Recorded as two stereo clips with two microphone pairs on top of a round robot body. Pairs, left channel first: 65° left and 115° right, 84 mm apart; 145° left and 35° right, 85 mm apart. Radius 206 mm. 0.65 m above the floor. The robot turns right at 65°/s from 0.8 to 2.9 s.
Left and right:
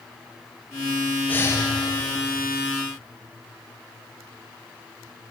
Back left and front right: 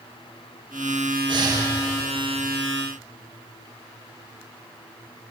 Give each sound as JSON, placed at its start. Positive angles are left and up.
{"t": 1.3, "sound": "breathing", "azimuth_deg": -5, "distance_m": 1.4}